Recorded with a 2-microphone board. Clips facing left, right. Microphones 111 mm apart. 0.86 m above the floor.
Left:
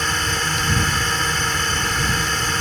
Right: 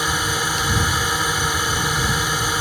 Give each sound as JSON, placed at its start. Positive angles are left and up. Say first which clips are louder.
{"t": 0.0, "sound": "a drone", "louder": "right 1 dB", "side_deg": -10}